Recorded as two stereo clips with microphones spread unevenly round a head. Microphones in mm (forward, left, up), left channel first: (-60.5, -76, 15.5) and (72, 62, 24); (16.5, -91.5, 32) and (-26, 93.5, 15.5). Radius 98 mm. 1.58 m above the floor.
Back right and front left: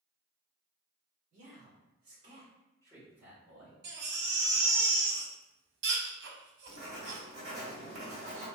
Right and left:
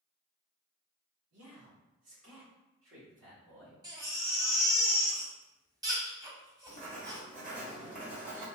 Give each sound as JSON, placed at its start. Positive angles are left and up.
{"t": 1.3, "sound": "a man speaking", "azimuth_deg": 100, "distance_m": 1.9}
{"t": 3.8, "sound": "a baby crying", "azimuth_deg": 30, "distance_m": 0.7}
{"t": 6.7, "sound": "writing", "azimuth_deg": 75, "distance_m": 1.5}